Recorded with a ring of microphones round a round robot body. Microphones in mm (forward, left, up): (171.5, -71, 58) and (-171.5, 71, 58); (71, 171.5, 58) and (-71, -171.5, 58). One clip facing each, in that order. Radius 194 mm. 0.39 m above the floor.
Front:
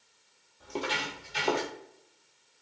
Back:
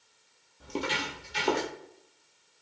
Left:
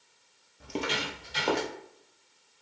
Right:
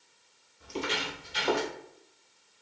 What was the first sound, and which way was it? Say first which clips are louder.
Footsteps: back 1 dB, left 1 dB; 95° left.